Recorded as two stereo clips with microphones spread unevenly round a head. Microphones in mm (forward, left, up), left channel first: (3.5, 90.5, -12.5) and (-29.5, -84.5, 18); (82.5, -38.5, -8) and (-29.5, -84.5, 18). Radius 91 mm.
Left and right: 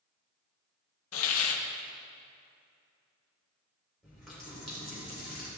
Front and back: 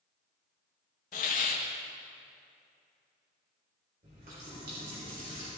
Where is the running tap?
170° left, 4.5 m.